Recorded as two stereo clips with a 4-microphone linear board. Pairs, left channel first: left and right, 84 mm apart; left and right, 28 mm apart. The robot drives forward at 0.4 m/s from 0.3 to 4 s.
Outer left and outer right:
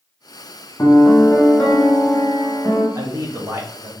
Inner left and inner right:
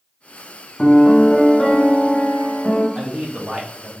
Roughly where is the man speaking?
Right.